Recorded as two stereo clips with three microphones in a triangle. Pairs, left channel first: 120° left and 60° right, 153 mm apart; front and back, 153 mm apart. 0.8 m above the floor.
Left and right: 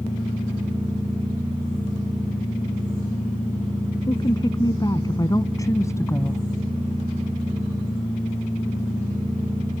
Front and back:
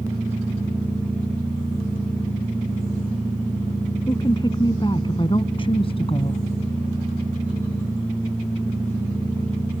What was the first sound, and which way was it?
A woman speaking, 60° left.